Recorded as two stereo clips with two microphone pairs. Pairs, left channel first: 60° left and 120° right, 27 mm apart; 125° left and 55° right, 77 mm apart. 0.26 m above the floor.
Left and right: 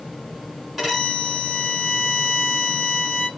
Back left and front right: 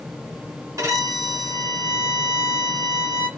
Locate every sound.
0.8 s a violin: 30° right, 2 m